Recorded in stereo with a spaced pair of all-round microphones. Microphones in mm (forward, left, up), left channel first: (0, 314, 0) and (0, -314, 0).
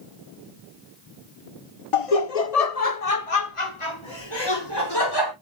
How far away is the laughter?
About 1.0 m.